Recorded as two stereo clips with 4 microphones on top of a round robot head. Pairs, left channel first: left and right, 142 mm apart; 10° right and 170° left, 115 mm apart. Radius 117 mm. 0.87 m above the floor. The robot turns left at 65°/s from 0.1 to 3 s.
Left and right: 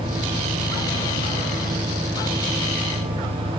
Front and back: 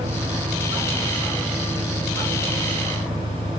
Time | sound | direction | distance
0.0 | an engine running | 150° left | ?